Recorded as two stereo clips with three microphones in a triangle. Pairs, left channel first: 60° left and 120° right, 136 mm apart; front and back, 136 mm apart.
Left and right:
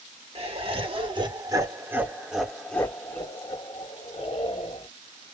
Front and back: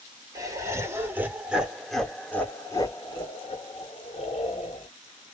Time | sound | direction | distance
0.3 | laughter | 125° right | 1.4 m